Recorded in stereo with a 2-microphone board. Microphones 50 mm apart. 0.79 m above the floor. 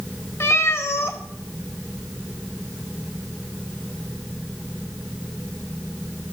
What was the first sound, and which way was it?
A cat meowing, 55° left (ahead or behind).